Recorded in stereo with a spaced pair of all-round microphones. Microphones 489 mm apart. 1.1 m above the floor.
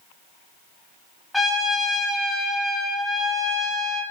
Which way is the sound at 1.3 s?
Centre (ahead or behind).